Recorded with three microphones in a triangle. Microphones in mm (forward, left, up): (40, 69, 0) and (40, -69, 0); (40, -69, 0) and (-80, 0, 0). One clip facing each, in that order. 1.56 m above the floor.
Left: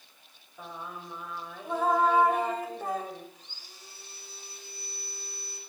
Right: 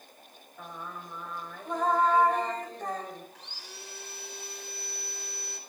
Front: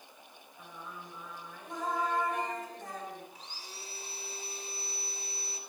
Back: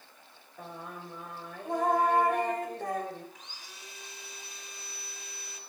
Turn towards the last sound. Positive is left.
turn(degrees=-85)